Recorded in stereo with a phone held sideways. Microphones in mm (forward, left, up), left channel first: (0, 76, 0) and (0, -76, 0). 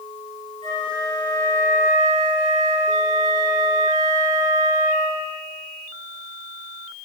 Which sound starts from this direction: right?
A flute, at 0.6 s.